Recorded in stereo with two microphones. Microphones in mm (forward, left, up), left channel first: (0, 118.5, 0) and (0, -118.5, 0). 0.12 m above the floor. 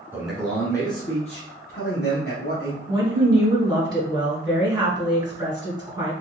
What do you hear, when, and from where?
0.1 s a man speaking: 5° right (ahead or behind), 1.2 m; by 2.8 s 60° left (ahead or behind), 2 m
2.9 s a woman speaking: 20° right (ahead or behind), 1.7 m